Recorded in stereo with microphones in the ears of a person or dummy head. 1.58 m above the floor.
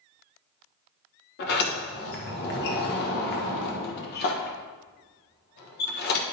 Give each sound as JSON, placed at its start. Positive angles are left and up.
{"t": 1.4, "sound": "a sliding door", "side_deg": 60, "distance_m": 1.5}